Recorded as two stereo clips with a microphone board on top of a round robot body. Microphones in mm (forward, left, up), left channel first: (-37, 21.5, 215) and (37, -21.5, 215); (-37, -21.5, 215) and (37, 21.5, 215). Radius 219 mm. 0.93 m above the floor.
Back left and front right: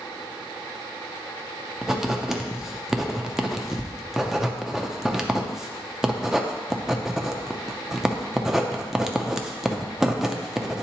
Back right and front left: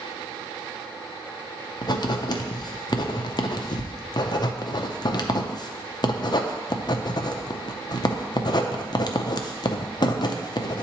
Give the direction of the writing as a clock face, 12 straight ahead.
4 o'clock.